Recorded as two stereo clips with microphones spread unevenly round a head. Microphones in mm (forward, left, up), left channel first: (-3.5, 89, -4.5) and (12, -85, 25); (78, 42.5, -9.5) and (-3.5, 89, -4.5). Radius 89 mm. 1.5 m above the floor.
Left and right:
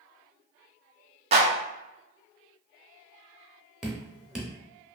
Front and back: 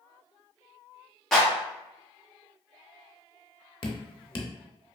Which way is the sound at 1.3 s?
120° right.